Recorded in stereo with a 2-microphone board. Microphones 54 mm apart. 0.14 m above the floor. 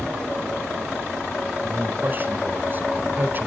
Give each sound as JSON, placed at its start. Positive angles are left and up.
{"t": 1.6, "sound": "a man speaking", "side_deg": -40, "distance_m": 1.3}